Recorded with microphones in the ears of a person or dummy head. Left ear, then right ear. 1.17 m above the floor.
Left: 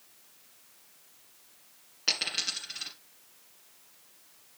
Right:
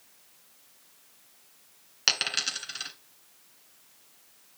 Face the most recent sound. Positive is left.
turn(degrees=-50)  # may be behind; listen again after turning